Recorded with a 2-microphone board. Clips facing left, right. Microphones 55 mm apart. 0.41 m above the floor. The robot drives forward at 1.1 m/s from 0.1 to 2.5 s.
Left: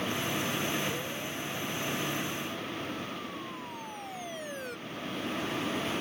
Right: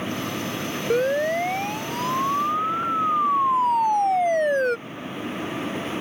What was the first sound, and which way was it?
A siren, 75° right (ahead or behind).